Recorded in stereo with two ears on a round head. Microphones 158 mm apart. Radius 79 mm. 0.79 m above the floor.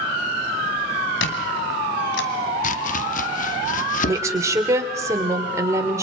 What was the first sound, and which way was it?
A squeak, 70° left (ahead or behind).